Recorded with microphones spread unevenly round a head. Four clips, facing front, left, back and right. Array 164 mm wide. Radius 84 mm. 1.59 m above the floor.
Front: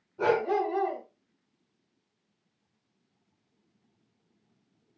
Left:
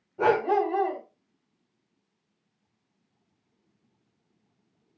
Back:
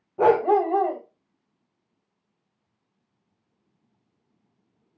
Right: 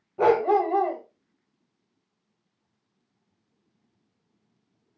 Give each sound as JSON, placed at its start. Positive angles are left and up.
{"t": 0.2, "sound": "a dog barking", "azimuth_deg": -160, "distance_m": 2.5}